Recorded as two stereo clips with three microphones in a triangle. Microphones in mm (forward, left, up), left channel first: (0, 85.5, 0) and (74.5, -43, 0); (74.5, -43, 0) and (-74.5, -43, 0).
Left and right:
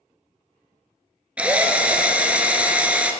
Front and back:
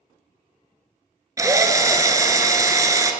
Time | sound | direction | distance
1.4 | a drill | 135° right | 0.5 m